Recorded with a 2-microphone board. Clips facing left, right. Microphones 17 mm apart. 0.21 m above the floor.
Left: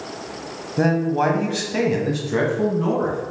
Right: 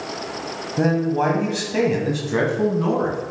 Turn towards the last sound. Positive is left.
turn(degrees=-20)  # may be behind; listen again after turning